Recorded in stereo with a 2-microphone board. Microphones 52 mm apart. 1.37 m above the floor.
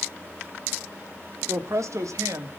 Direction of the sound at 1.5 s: 70° right (ahead or behind).